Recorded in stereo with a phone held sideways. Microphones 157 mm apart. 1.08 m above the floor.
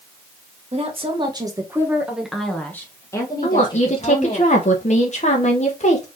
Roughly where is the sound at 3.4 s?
Left.